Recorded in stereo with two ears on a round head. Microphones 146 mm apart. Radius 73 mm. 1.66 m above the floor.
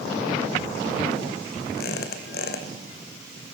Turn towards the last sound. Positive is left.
turn(degrees=65)  # may be behind; listen again after turning